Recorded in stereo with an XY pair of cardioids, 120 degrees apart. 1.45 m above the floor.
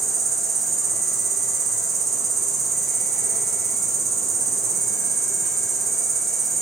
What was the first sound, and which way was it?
An insect, 45° right.